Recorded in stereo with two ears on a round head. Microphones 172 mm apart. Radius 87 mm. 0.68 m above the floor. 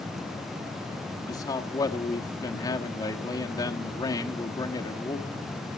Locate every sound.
1.3 s a man speaking: 20° left (ahead or behind), 1.2 m